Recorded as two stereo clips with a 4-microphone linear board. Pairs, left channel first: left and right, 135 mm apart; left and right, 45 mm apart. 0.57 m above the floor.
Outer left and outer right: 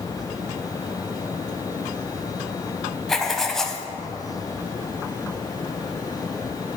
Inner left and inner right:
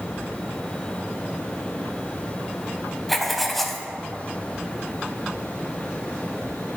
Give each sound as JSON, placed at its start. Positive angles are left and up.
{"t": 3.1, "sound": "writing", "side_deg": 5, "distance_m": 0.5}